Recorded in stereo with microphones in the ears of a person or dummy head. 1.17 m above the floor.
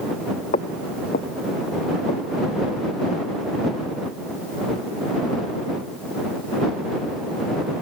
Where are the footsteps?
35° left (ahead or behind); by 2.6 s 50° left (ahead or behind).